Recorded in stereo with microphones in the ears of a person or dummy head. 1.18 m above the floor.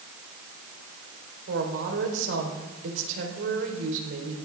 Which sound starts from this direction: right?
A woman speaking, at 1.5 s.